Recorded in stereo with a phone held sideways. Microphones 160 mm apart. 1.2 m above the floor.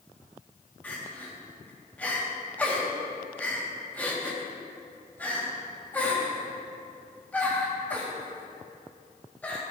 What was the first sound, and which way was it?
Crying, 10° left (ahead or behind).